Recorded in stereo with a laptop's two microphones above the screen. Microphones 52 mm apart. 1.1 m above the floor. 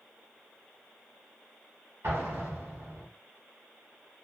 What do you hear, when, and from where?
2.0 s an explosion: 55° right (ahead or behind), 1.7 m